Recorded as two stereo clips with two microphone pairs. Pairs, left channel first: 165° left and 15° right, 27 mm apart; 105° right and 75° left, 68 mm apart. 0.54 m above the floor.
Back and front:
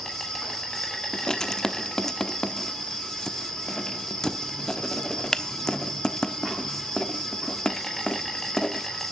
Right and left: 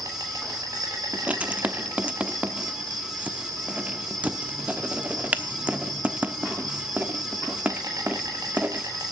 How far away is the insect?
About 4 m.